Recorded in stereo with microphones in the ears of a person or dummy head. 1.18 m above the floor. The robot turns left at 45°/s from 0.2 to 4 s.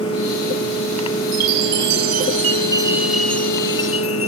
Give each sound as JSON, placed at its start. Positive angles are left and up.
{"t": 1.3, "sound": "a chime", "azimuth_deg": -95}